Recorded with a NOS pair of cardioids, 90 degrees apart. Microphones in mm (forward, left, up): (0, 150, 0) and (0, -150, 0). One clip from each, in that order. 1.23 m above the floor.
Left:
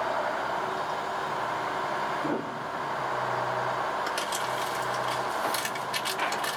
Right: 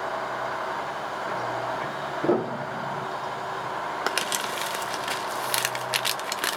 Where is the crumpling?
65° right, 0.9 m.